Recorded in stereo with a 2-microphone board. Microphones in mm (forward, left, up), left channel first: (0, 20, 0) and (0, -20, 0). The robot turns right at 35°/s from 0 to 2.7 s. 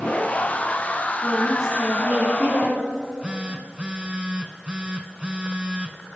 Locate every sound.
1.2 s a woman speaking: 170° right, 3 m; by 2.8 s 120° right, 3 m
2.9 s a phone buzzing: 25° right (ahead or behind), 0.8 m